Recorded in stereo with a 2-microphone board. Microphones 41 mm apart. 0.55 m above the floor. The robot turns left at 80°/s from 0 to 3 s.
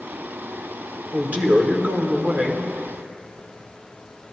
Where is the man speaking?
35° right, 1.2 m; by 2.7 s 165° right, 1.2 m.